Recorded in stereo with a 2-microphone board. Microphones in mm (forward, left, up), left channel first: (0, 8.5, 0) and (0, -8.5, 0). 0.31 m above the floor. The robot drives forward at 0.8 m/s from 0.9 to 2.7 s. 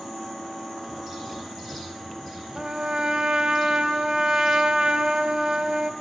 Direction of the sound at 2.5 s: 50° right (ahead or behind).